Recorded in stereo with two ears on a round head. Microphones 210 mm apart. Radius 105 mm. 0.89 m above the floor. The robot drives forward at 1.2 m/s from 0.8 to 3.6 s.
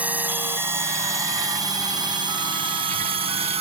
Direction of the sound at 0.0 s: 5° right (ahead or behind).